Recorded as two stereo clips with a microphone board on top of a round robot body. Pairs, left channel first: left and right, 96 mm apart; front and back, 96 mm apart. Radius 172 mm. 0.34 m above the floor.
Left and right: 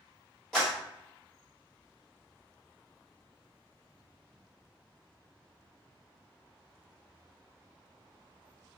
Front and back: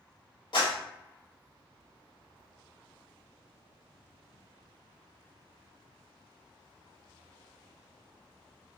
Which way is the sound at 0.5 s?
5° left.